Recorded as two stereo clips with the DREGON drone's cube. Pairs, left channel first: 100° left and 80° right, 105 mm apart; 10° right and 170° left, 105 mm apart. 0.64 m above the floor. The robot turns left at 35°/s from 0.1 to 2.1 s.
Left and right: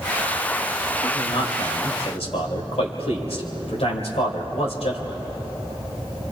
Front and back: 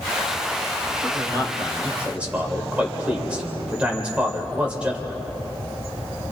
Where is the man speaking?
130° left, 3 m; by 5.2 s 90° left, 3 m.